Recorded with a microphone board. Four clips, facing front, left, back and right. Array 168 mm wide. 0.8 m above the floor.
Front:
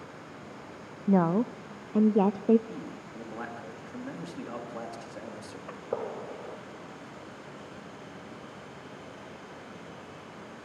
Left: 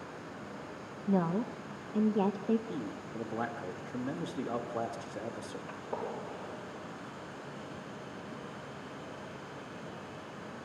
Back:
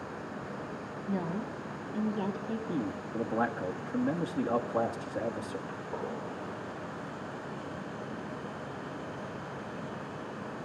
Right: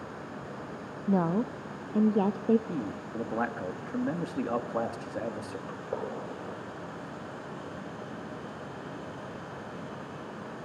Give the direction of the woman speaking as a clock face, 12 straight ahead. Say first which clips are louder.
Right 3 dB, front 10 dB; 1 o'clock.